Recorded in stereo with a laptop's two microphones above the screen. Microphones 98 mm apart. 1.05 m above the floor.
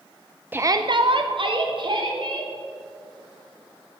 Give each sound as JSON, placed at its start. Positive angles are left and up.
{"t": 0.5, "sound": "a shout", "side_deg": -20, "distance_m": 0.5}